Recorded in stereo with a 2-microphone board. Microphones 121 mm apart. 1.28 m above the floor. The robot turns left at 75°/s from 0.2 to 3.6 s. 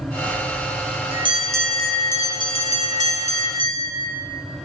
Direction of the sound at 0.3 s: 60° right.